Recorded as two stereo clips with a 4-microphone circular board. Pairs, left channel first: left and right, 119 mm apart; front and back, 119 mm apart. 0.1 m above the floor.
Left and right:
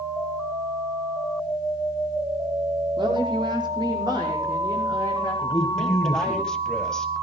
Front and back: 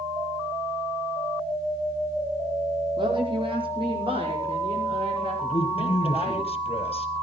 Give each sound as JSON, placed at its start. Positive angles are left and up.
{"t": 3.0, "sound": "a woman speaking", "azimuth_deg": -135, "distance_m": 5.0}
{"t": 5.4, "sound": "a man speaking", "azimuth_deg": 5, "distance_m": 2.5}